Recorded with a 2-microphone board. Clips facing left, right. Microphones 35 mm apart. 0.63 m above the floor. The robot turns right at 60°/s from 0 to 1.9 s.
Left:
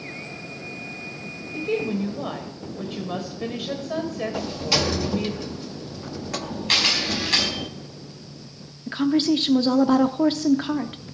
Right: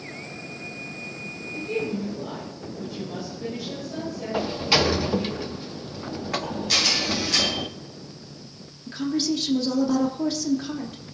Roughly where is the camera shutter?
Left.